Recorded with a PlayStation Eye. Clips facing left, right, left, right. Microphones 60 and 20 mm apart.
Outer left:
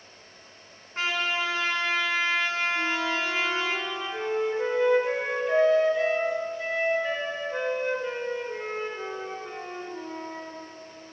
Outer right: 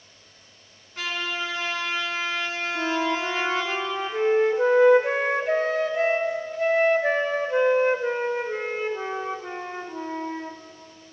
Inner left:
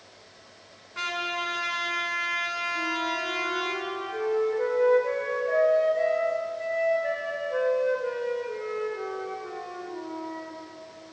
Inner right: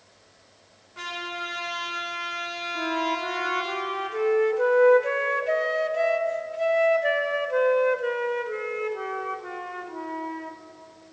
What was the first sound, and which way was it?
A trumpet, 35° left (ahead or behind).